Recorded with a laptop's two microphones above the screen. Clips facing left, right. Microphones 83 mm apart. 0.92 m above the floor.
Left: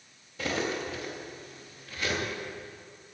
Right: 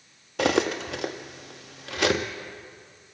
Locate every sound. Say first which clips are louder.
0.4 s cutlery clinking: right 8 dB; 75° right (ahead or behind), 0.7 m